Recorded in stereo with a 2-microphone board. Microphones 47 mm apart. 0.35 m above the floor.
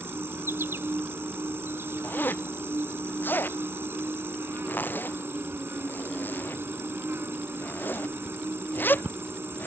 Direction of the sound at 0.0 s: 55° right (ahead or behind).